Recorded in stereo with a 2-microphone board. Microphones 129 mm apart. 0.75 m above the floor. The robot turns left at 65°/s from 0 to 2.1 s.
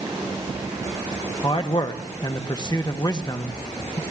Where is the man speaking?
100° left, 0.7 m; by 4.0 s 55° left, 0.7 m.